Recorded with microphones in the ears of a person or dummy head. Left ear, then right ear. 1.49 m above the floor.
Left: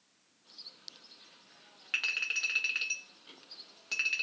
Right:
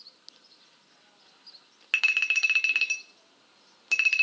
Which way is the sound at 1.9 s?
35° right (ahead or behind).